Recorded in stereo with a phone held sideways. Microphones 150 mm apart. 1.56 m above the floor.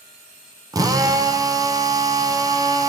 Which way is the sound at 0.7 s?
25° right (ahead or behind).